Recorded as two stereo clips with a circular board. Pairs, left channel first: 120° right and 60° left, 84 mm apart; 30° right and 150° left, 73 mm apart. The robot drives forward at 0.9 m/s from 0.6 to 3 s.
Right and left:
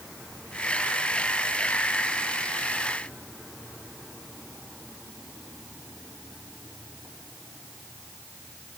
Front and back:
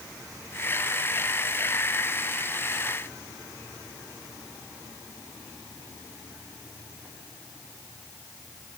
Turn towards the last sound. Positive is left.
No sound to turn to.